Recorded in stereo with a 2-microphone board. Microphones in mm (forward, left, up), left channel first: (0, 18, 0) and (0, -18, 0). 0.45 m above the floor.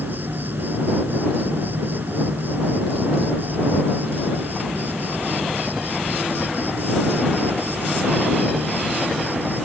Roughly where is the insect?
Right.